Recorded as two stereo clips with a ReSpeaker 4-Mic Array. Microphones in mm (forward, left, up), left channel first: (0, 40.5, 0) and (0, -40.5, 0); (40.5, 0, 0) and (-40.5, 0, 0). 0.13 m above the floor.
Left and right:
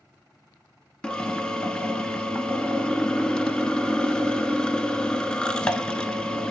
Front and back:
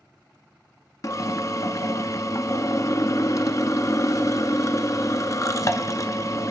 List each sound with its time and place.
1.0 s a drill: 15° left, 0.6 m